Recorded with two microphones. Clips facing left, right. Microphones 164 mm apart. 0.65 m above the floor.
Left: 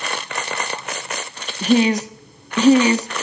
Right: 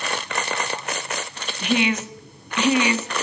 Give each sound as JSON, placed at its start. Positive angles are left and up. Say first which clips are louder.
{"t": 1.6, "sound": "a woman speaking", "louder": "left 6 dB", "side_deg": 35, "distance_m": 1.0}